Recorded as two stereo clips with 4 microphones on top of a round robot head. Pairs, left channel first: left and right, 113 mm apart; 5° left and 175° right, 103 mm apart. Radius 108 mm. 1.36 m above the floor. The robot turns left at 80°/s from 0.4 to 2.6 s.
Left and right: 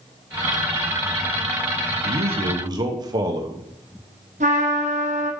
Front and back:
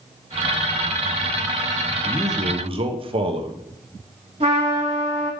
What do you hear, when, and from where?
2.0 s a man speaking: 100° right, 0.9 m; by 3.6 s 145° right, 0.9 m
4.4 s a trumpet: 125° right, 0.9 m